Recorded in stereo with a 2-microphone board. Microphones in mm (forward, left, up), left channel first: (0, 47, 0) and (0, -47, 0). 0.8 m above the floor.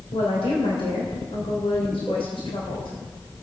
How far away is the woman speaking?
About 3 m.